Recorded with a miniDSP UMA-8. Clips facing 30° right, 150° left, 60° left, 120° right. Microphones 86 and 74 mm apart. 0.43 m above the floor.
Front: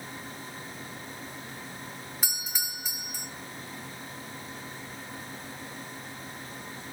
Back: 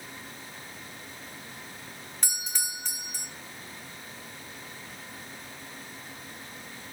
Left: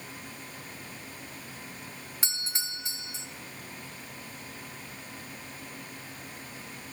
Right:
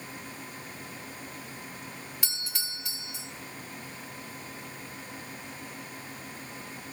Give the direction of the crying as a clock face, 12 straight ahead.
No crying in this recording.